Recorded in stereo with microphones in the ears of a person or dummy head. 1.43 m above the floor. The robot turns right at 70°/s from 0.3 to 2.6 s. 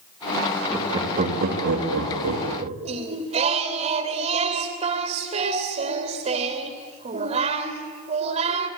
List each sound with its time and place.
0.7 s laughter: 5° right (ahead or behind), 3 m; by 2.8 s 40° right (ahead or behind), 3 m
2.9 s singing: 35° right (ahead or behind), 2.5 m